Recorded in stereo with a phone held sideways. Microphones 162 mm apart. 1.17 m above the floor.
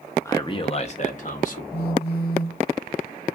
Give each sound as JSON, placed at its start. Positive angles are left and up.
{"t": 0.2, "sound": "a man speaking", "side_deg": 15, "distance_m": 0.6}
{"t": 1.7, "sound": "a phone buzzing", "side_deg": 75, "distance_m": 0.9}